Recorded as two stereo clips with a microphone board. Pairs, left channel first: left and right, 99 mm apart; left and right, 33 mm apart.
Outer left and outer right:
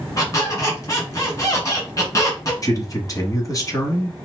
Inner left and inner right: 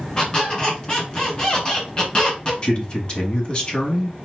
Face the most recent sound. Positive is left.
turn(degrees=35)  # may be behind; listen again after turning